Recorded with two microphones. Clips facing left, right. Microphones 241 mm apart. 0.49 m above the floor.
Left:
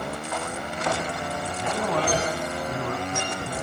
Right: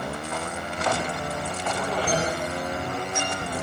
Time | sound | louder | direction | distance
1.6 | a man speaking | left 3 dB | 65° left (ahead or behind) | 4 m